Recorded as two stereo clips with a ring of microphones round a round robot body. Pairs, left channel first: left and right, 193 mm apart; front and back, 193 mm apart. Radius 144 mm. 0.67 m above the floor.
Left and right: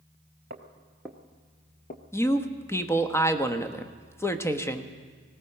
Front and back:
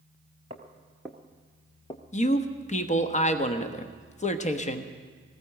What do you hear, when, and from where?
0.5 s footsteps: 120° right, 0.8 m; by 2.0 s 60° left, 1.1 m
2.1 s a man speaking: 20° left, 1.1 m